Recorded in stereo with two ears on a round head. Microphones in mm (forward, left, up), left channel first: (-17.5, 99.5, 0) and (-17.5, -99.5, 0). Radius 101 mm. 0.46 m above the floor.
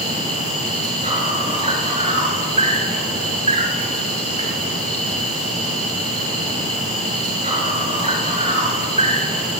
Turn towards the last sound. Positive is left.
turn(degrees=-20)  # may be behind; listen again after turning